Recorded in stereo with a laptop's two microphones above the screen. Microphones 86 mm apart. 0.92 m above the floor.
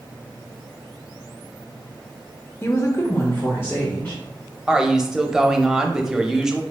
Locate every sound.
2.6 s a woman speaking: 25° left (ahead or behind), 0.6 m; by 4.2 s 20° left (ahead or behind), 1.3 m
4.7 s a woman speaking: 5° right (ahead or behind), 0.6 m